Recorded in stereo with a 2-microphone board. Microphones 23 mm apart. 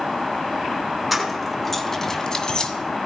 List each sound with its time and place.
1.1 s keys jangling: 5° right (ahead or behind), 2.5 m; by 2.7 s 45° left (ahead or behind), 1.9 m